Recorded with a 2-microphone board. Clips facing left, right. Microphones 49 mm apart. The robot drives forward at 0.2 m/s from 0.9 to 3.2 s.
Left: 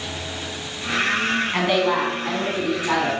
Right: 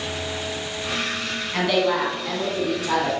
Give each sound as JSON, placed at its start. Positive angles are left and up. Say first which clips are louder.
{"t": 1.5, "sound": "a woman speaking", "louder": "right 2 dB", "side_deg": 25, "distance_m": 1.1}